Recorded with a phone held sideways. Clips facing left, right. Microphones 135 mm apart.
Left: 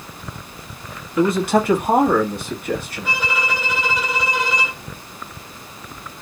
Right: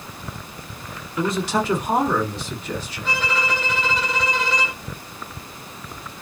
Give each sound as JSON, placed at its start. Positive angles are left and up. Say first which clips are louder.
{"t": 1.2, "sound": "a man speaking", "louder": "left 6 dB", "side_deg": 55, "distance_m": 1.3}
{"t": 3.0, "sound": "a violin", "louder": "even", "side_deg": 10, "distance_m": 0.8}